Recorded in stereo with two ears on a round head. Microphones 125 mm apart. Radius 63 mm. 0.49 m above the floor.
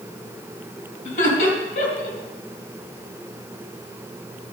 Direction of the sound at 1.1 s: 65° left (ahead or behind).